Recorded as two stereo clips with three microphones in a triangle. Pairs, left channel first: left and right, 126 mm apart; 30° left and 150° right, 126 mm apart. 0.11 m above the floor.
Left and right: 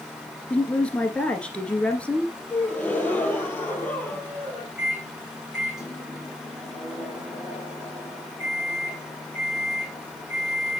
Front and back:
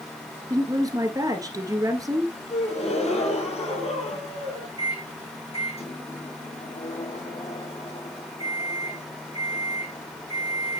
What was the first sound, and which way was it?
A woman speaking, 165° left.